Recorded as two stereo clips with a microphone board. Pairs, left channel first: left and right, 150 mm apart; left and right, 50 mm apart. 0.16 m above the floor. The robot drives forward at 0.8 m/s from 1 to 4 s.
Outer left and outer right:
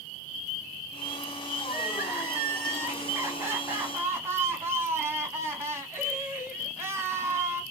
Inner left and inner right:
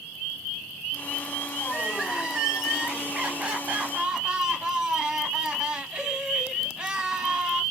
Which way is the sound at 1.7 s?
10° right (ahead or behind).